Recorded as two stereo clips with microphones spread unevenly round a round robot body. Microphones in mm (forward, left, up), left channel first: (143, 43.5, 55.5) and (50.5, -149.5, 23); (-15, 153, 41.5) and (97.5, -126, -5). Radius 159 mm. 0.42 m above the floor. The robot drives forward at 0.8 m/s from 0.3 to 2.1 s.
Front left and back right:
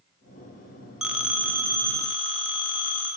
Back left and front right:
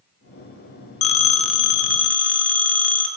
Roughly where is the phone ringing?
Behind.